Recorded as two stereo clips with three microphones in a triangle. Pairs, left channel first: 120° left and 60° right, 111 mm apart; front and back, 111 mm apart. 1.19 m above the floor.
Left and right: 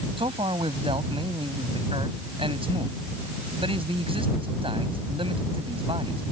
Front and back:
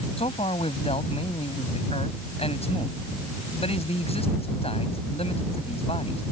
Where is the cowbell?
No cowbell in this recording.